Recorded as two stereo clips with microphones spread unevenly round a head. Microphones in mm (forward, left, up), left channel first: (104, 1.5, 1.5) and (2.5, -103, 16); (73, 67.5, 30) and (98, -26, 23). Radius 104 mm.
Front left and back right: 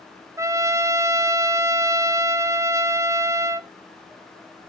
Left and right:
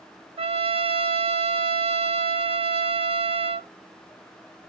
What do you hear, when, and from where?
0.4 s a trumpet: 60° right, 0.8 m